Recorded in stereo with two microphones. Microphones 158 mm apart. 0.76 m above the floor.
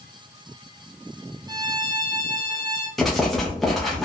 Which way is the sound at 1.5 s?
25° right (ahead or behind).